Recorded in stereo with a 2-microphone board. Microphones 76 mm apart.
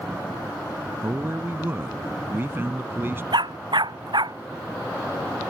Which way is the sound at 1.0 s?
30° right (ahead or behind).